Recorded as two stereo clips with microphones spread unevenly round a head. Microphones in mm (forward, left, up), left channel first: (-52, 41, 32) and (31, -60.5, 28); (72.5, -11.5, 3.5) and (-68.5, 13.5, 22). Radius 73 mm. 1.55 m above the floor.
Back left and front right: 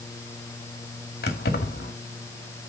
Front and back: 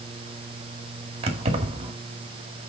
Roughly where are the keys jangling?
Behind left.